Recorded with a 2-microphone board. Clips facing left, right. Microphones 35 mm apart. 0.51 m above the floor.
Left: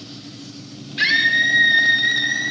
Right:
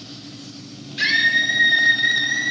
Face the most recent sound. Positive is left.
turn(degrees=5)  # may be behind; listen again after turning